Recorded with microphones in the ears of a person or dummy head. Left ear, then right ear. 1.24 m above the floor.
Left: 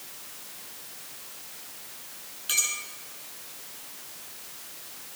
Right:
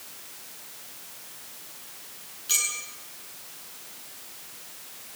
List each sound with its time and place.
2.5 s a clink: 20° left (ahead or behind), 9 m